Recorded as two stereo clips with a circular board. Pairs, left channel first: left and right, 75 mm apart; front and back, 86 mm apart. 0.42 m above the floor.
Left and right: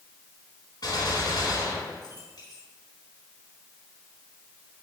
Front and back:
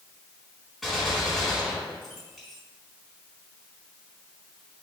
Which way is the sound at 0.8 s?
90° left.